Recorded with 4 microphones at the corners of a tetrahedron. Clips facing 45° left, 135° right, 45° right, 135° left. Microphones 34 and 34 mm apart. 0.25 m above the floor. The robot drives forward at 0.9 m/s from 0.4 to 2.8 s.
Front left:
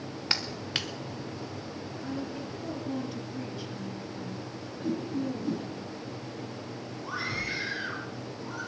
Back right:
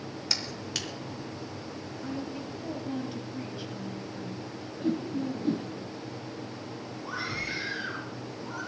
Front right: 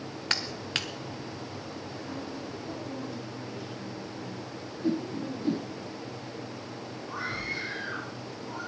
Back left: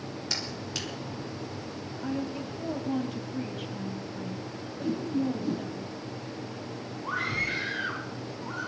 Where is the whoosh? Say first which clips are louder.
Back right 1 dB, back left 2 dB; 90° right, 2.5 m.